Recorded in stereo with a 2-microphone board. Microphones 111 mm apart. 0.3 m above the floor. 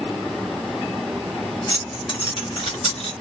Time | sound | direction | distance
1.7 | keys jangling | 40° left (ahead or behind) | 1.3 m